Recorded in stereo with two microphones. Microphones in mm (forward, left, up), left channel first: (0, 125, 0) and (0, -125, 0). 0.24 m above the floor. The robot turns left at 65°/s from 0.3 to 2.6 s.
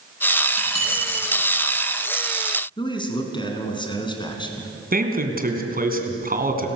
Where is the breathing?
No breathing in this recording.